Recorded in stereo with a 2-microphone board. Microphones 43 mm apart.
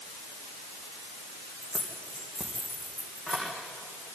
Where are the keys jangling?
25° left (ahead or behind), 3.5 m.